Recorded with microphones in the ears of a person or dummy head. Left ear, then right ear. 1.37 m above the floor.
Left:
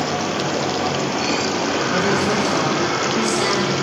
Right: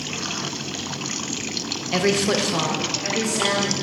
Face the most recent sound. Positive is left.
turn(degrees=25)  # may be behind; listen again after turning